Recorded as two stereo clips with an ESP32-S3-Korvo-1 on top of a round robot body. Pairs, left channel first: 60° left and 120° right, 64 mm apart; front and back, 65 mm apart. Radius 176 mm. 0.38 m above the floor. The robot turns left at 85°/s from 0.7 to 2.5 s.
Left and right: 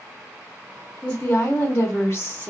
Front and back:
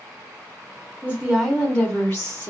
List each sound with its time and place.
1.0 s a woman speaking: 135° left, 1.0 m; by 2.5 s 10° left, 1.0 m